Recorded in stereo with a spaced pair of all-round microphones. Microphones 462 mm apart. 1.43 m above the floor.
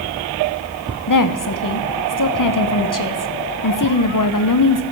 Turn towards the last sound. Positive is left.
turn(degrees=45)  # may be behind; listen again after turning